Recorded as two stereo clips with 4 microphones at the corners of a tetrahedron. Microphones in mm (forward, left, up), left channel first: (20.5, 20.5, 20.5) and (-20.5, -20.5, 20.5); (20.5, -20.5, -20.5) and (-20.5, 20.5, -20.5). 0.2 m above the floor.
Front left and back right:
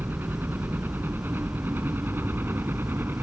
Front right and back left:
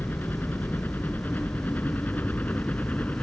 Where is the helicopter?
90° right; by 3.2 s 100° right.